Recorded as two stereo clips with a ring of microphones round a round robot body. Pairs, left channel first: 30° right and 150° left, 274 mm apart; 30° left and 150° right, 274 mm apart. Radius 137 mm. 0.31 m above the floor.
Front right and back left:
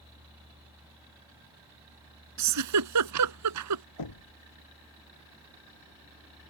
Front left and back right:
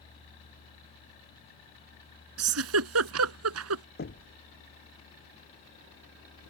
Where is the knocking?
25° right.